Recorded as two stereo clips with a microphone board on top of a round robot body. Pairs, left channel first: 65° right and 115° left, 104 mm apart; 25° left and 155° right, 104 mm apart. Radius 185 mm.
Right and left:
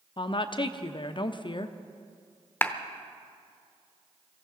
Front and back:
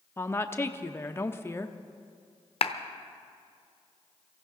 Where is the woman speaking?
40° right, 0.8 m.